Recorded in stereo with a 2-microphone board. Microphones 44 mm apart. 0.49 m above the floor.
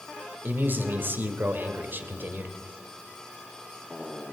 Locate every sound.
0.4 s a man speaking: 50° right (ahead or behind), 1.7 m